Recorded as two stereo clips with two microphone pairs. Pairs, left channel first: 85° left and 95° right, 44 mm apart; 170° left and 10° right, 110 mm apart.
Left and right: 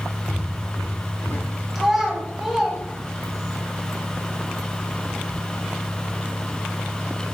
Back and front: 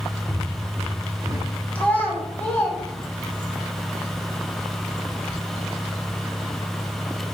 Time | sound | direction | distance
0.3 | footsteps | 90° left | 1.8 m
1.8 | a child speaking | 150° right | 0.9 m